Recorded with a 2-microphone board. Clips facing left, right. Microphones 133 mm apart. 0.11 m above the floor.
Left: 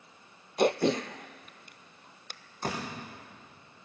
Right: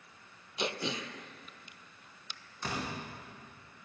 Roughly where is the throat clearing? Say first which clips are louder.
Left 11 dB; left.